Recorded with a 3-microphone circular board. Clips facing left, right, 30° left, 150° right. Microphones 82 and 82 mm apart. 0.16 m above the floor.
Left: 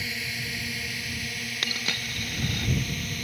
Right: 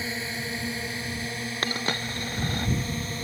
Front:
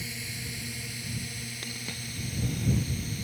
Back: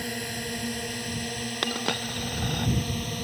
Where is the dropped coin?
145° right.